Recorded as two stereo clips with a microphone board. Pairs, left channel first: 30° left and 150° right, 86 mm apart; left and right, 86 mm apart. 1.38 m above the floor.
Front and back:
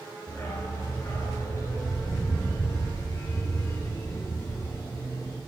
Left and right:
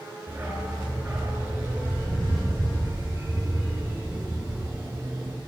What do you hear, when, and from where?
0.3 s a dog barking: 25° right, 7.5 m; by 5.4 s 30° right, 10 m